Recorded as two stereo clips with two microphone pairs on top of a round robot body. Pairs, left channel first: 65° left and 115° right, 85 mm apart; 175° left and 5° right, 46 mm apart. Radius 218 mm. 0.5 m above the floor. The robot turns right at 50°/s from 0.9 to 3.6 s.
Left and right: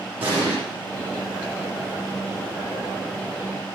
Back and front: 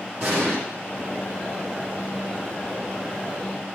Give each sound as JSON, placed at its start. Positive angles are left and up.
{"t": 0.2, "sound": "an explosion", "azimuth_deg": -45, "distance_m": 9.0}